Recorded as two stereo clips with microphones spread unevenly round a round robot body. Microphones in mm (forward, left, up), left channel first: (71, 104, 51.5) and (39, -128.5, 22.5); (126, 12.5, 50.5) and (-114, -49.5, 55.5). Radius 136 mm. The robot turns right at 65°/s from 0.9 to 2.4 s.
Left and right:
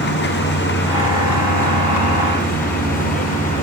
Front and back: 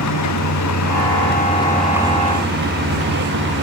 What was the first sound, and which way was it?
A vehicle, 40° left.